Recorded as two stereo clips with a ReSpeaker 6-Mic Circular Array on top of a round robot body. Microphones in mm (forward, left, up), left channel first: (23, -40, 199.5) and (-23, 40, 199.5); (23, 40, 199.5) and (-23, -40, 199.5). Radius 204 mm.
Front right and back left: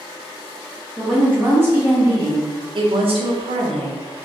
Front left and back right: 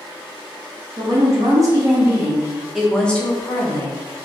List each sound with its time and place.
1.0 s a woman speaking: 165° right, 1.7 m; by 4.0 s 105° left, 1.1 m